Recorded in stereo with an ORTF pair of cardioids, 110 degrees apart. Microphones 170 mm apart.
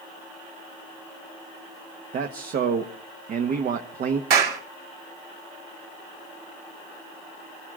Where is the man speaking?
60° right, 1.4 m.